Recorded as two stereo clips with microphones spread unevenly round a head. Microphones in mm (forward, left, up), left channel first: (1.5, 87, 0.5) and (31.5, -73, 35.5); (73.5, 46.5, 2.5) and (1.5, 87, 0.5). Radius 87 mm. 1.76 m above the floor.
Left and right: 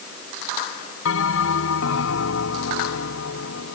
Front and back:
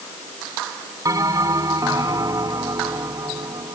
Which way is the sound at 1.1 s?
100° left.